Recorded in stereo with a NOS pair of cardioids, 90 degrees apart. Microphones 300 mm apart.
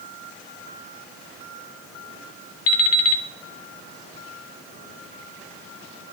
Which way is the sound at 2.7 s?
55° left.